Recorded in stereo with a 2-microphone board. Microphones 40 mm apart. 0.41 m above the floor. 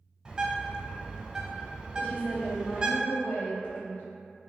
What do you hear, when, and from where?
0.2 s a bird: 20° right (ahead or behind), 0.6 m
2.0 s a woman speaking: 50° left (ahead or behind), 1.6 m